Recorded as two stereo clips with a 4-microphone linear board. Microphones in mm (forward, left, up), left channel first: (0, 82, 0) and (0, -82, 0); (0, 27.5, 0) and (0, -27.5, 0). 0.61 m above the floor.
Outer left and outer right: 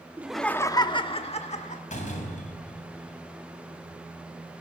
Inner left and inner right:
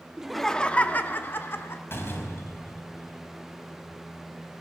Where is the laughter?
10° right (ahead or behind), 0.6 m; by 1.8 s 45° left (ahead or behind), 1.5 m.